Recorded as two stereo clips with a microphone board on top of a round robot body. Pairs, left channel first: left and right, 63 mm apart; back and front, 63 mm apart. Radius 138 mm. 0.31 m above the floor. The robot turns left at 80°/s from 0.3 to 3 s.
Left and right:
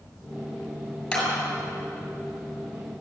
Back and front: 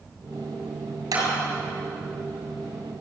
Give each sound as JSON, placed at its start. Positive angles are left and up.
{"t": 1.1, "sound": "a clap", "azimuth_deg": 10, "distance_m": 7.5}